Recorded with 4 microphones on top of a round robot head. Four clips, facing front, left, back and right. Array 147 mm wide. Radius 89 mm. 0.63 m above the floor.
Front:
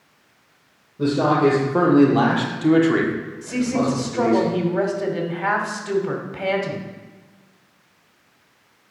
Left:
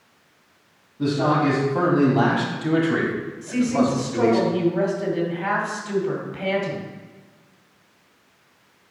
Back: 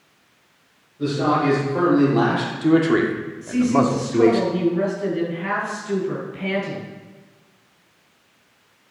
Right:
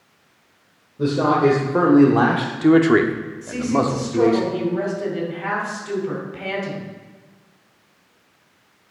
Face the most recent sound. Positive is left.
turn(degrees=0)